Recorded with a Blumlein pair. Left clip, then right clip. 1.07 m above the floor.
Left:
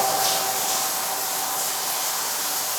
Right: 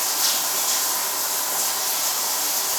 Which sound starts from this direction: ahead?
Running water, at 0.0 s.